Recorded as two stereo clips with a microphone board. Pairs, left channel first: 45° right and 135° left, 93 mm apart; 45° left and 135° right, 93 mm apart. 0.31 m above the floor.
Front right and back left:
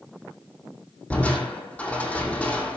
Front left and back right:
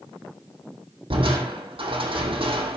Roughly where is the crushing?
Behind right.